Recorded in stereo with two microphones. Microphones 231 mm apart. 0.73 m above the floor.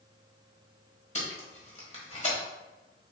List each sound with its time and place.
1.1 s tape being pulled: 30° left (ahead or behind), 1.4 m